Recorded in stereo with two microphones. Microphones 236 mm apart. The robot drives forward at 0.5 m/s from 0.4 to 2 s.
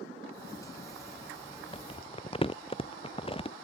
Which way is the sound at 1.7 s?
25° left (ahead or behind).